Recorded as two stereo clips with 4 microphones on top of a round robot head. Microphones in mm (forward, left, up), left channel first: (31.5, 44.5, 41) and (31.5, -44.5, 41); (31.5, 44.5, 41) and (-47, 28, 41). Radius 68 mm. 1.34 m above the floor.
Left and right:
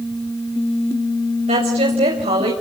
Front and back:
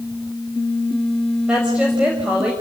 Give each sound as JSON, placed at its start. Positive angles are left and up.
{"t": 1.5, "sound": "a woman speaking", "azimuth_deg": -85, "distance_m": 6.0}